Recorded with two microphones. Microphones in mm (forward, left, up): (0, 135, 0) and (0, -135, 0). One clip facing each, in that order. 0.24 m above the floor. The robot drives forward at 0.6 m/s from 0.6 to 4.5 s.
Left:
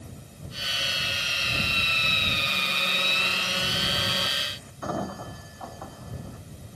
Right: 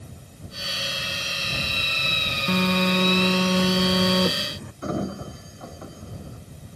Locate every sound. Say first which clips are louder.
2.5 s a phone buzzing: right 15 dB; 75° right (ahead or behind); by 4.7 s 65° right (ahead or behind)
4.8 s a sliding door: right 4 dB; 25° right (ahead or behind)